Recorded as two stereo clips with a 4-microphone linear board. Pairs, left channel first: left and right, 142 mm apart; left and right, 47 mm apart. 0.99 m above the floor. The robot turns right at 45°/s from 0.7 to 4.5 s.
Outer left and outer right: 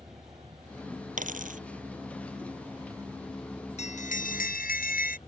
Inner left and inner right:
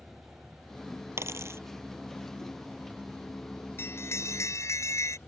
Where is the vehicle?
130° right; by 5.3 s 45° left.